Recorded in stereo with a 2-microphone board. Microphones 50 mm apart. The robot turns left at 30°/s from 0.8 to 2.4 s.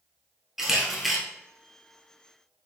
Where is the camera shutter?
10° right (ahead or behind), 1.1 m; by 1.2 s centre (ahead or behind), 1.1 m.